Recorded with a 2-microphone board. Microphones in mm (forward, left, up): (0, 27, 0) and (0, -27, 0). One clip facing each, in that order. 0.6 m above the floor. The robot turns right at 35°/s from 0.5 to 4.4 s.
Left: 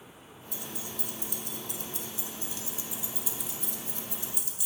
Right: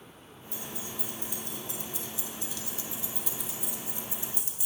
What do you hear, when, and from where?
0.5 s keys jangling: 70° left (ahead or behind), 1.0 m; by 4.7 s 35° right (ahead or behind), 1.0 m